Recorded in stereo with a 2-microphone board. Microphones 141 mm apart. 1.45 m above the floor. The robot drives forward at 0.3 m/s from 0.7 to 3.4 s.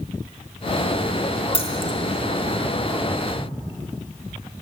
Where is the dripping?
45° left (ahead or behind), 1.7 m.